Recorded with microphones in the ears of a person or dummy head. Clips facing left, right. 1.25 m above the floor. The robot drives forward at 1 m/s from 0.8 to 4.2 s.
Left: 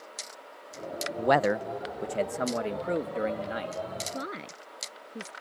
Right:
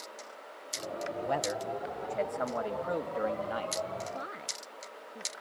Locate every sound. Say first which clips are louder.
1.2 s a man speaking: left 10 dB; 70° left (ahead or behind); by 3.8 s 20° left (ahead or behind)
4.1 s a woman speaking: left 4 dB; 40° left (ahead or behind)